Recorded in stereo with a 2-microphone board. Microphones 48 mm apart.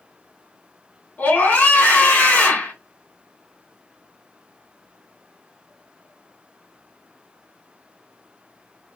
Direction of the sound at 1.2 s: 35° left (ahead or behind).